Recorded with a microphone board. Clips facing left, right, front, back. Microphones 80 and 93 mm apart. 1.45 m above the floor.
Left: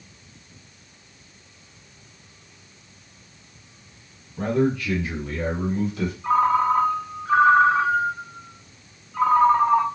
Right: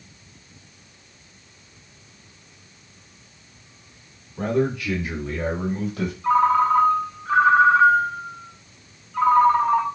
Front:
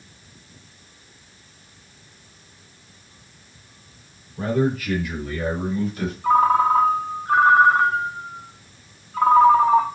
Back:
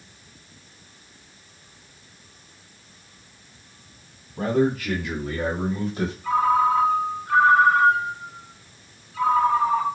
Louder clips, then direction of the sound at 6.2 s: Right 2 dB, front 3 dB; 10° left.